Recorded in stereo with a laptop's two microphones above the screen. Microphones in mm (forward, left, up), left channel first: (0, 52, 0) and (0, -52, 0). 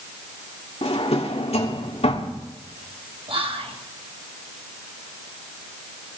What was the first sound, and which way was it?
A drawer, 80° left.